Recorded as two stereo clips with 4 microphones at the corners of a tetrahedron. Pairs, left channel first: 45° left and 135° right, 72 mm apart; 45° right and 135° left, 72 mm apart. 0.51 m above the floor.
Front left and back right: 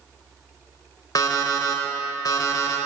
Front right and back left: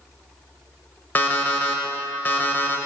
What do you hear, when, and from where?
1.1 s an alarm clock: 20° left, 0.6 m